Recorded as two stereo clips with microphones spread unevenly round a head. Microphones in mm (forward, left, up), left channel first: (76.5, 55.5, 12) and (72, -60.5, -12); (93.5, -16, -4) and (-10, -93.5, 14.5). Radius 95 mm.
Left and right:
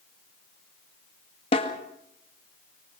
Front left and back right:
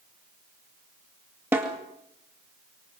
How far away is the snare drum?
About 1.9 m.